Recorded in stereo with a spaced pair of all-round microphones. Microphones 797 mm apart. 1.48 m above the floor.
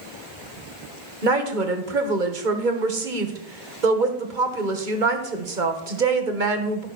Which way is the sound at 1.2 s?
75° right (ahead or behind).